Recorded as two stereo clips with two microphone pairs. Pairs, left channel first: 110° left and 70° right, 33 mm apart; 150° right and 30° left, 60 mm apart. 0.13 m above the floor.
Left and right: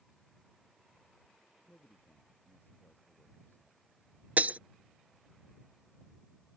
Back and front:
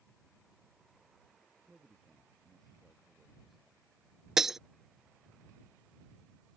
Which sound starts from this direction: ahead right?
Breaking glass, at 4.4 s.